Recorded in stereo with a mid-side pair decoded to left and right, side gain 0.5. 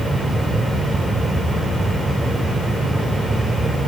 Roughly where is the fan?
Ahead.